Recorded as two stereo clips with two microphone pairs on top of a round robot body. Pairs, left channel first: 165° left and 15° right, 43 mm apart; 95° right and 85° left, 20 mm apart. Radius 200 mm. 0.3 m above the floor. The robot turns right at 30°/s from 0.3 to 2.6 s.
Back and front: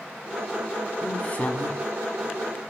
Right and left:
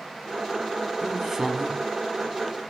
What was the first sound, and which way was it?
A woman speaking, 105° left.